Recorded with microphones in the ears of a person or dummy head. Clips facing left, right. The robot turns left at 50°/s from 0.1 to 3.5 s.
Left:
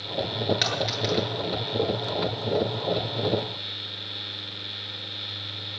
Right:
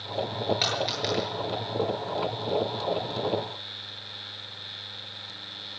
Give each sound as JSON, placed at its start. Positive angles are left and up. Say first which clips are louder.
{"t": 0.6, "sound": "a dropped coin", "louder": "left 1 dB", "side_deg": 20, "distance_m": 8.0}